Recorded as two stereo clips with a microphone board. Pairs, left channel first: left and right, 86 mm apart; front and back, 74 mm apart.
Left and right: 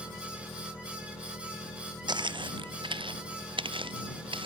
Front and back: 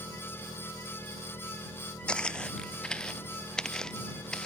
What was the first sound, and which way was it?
An engine running, 35° left.